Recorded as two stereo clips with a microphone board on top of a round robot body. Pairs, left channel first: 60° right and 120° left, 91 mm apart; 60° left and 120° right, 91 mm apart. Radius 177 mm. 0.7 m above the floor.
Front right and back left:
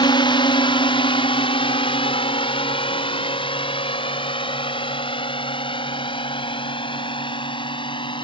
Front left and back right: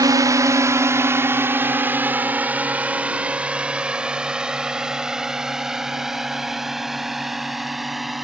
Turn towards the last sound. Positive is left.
turn(degrees=-30)